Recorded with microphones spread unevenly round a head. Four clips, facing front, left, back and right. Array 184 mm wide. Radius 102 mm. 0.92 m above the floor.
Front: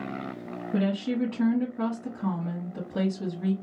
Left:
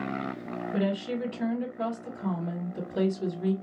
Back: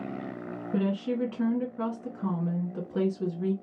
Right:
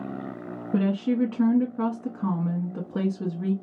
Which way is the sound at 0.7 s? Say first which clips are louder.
Right 6 dB, front 2 dB; 75° right.